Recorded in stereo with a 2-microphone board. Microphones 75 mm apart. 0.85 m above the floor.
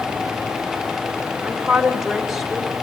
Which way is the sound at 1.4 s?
15° right (ahead or behind).